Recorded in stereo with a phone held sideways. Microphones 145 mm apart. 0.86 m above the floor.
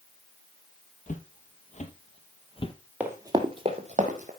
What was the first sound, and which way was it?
Footsteps, 60° left (ahead or behind).